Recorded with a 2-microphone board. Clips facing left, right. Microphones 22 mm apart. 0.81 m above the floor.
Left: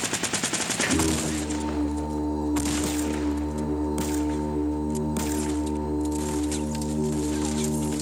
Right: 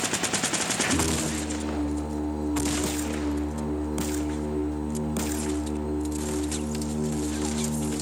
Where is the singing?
45° left (ahead or behind), 0.8 m.